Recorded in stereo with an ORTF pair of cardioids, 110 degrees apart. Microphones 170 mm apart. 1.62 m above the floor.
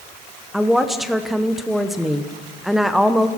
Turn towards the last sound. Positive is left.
turn(degrees=0)